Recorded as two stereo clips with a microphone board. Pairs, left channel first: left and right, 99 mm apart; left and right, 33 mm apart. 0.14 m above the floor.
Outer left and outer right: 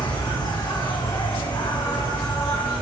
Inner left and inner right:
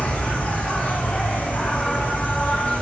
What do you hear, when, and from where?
0.0 s an insect: 45° left (ahead or behind), 4 m